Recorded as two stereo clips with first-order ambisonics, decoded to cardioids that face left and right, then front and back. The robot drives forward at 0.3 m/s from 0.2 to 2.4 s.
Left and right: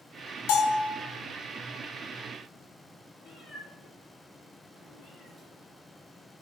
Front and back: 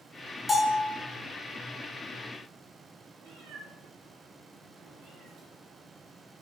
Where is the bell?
80° left, 0.7 m; by 0.9 s 90° left, 0.7 m.